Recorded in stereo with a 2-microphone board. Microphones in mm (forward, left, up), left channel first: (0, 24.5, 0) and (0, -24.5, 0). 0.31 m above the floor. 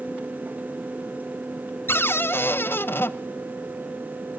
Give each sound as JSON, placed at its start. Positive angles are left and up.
{"t": 1.9, "sound": "a cupboard door", "side_deg": 50, "distance_m": 0.6}